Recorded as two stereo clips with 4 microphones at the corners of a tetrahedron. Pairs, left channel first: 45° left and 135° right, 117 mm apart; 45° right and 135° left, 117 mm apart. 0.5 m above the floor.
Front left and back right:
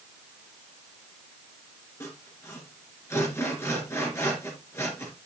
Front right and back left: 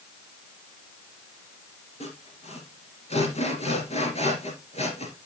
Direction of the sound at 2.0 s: 20° right.